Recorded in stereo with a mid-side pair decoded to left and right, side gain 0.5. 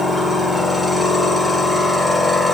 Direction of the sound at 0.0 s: 10° left.